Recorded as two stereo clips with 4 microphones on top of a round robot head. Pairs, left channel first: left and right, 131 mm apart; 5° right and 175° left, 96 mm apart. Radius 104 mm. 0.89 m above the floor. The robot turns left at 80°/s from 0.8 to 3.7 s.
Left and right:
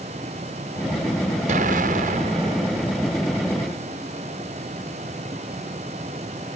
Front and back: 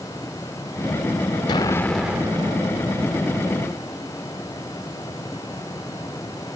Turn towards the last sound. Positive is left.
turn(degrees=130)